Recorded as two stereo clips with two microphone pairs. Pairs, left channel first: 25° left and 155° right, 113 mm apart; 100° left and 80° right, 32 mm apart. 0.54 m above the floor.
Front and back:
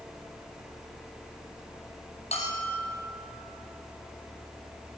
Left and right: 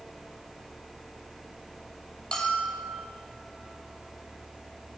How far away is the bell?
About 5.5 m.